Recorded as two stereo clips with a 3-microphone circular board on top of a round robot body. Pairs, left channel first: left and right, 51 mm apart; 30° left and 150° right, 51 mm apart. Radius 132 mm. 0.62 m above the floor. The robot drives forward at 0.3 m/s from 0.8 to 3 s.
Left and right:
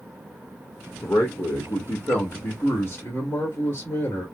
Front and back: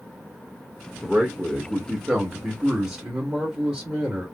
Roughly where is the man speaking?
Behind left.